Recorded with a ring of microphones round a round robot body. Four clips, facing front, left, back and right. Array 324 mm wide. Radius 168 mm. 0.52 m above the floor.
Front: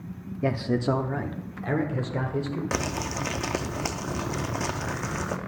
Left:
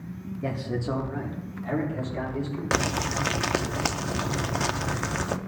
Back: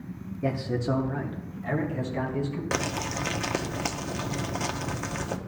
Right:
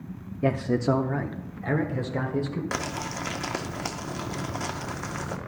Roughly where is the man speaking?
Ahead right.